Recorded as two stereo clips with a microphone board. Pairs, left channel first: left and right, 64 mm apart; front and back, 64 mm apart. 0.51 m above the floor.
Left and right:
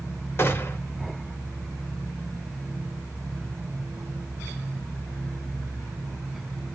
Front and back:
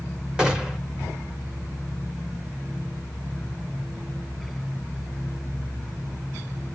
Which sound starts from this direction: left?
A gunshot, at 0.4 s.